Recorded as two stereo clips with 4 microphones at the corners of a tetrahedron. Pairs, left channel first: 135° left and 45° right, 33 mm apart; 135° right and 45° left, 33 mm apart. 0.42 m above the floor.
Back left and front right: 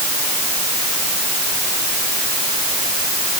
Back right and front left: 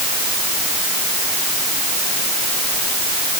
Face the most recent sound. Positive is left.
No sound to turn to.